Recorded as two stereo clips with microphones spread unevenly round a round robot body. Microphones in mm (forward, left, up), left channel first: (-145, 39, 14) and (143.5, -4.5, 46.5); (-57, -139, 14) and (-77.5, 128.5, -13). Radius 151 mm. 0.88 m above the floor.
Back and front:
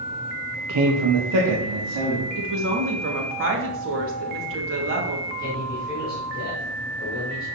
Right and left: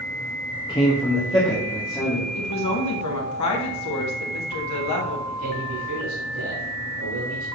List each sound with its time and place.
0.7 s a man speaking: 10° right, 0.9 m; by 2.2 s 5° right, 2 m
2.4 s a woman speaking: 55° right, 1.8 m
5.3 s a man speaking: 110° left, 2.5 m